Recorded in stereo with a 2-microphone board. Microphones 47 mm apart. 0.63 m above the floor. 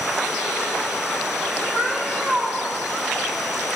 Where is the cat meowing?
30° right (ahead or behind), 2 m.